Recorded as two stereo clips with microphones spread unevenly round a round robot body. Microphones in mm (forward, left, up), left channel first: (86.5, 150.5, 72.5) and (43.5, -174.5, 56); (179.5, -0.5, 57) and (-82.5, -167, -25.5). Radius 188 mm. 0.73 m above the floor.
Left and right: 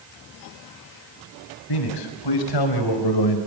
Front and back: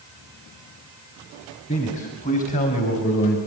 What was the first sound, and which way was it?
A man speaking, 105° left.